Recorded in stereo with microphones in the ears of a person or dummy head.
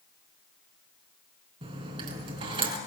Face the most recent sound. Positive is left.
turn(degrees=-30)  # may be behind; listen again after turning